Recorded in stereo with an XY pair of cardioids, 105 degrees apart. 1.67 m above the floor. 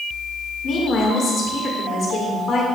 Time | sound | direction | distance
0.6 | a woman speaking | 60° left | 1.9 m